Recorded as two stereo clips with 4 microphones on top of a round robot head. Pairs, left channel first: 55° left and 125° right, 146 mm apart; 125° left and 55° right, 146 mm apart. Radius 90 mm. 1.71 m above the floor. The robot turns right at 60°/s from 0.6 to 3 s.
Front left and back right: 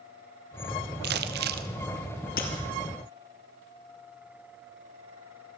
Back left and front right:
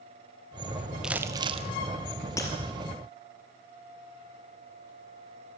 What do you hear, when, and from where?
1.0 s crumpling: 140° right, 1.0 m; by 1.7 s 100° right, 1.0 m
2.4 s breaking glass: 60° left, 2.5 m; by 2.5 s 70° left, 2.5 m